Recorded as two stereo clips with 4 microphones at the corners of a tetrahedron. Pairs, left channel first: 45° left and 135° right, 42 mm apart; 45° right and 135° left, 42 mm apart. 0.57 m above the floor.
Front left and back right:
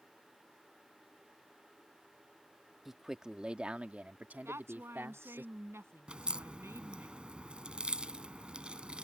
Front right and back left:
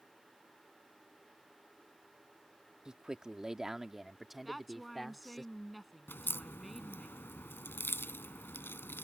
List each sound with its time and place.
2.9 s a man speaking: 155° left; by 5.5 s 130° right
4.5 s a woman speaking: 135° right
6.1 s a crack: 70° right